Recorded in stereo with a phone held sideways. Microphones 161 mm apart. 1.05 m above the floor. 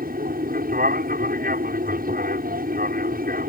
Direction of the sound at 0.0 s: 65° right (ahead or behind).